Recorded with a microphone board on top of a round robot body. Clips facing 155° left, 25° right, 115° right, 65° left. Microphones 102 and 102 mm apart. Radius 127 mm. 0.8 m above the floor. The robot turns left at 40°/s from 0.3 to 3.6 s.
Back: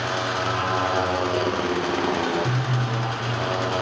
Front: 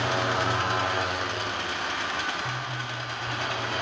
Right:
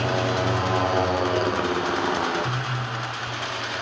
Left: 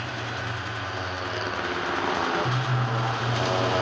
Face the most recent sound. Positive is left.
turn(degrees=110)